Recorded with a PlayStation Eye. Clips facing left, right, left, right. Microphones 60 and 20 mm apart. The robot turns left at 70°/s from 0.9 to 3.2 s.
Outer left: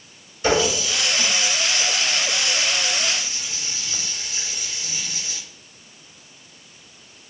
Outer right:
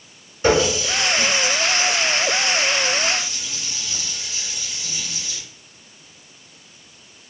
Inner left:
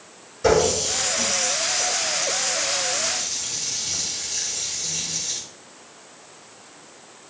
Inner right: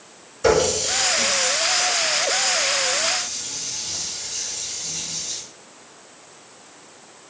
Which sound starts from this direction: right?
A running tap, at 0.4 s.